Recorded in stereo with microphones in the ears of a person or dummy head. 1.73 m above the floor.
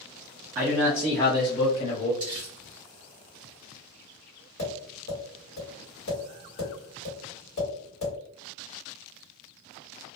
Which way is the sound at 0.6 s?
10° right (ahead or behind).